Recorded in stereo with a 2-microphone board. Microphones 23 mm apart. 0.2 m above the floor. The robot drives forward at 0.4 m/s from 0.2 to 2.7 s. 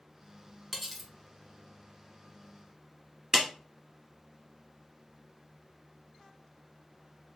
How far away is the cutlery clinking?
About 1.0 m.